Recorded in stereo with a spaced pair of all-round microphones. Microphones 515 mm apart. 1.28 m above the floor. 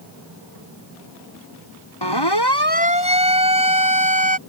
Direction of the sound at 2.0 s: 50° left (ahead or behind).